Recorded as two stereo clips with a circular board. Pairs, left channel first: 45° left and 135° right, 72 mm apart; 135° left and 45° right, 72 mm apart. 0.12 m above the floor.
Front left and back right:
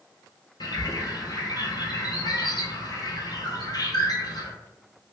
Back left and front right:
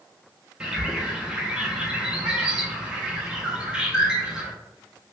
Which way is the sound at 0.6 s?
30° left.